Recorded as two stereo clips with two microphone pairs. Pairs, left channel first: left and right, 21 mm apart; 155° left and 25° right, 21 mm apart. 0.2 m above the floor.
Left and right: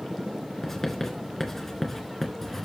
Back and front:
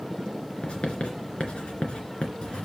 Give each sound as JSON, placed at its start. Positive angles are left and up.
{"t": 0.6, "sound": "writing", "azimuth_deg": 160, "distance_m": 2.5}